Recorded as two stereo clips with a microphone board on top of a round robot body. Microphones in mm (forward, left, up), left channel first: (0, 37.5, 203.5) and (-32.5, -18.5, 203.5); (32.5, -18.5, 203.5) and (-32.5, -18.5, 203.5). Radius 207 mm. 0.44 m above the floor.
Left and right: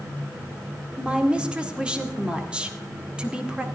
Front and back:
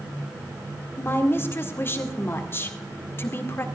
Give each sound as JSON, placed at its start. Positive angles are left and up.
{"t": 1.0, "sound": "a woman speaking", "azimuth_deg": -50, "distance_m": 2.0}